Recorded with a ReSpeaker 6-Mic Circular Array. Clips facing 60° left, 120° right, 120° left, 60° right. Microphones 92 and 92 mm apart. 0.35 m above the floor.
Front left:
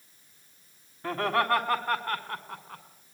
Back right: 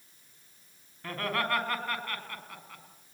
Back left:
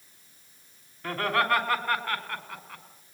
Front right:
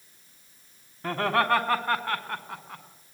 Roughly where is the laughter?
Ahead.